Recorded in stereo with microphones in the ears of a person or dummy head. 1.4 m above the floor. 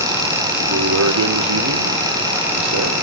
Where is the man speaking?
70° right (ahead or behind), 1.5 m.